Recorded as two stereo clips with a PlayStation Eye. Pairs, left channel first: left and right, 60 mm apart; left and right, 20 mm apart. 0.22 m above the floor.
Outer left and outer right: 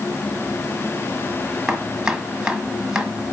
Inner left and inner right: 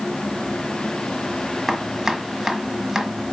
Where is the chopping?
15° right (ahead or behind), 1.5 m.